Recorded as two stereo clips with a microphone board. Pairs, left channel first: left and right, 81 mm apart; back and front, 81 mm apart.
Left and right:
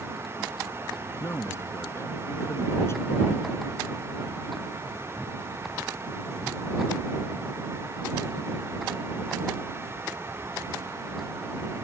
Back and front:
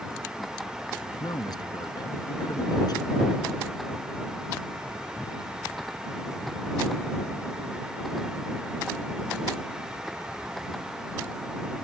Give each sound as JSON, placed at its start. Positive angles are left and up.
{"t": 1.2, "sound": "a man speaking", "azimuth_deg": 145}